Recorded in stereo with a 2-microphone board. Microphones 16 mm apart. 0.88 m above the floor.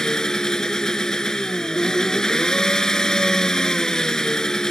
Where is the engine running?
40° left (ahead or behind).